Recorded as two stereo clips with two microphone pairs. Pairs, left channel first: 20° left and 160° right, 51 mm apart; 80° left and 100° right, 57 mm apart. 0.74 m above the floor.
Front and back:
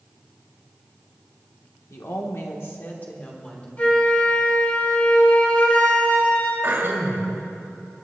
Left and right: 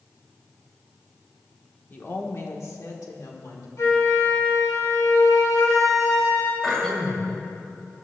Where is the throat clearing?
155° left, 3 m.